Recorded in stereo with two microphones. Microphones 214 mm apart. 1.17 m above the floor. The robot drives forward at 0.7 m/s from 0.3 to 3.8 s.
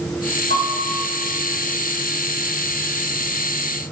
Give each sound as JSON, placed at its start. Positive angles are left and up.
{"t": 0.5, "sound": "a piano", "side_deg": -70, "distance_m": 2.0}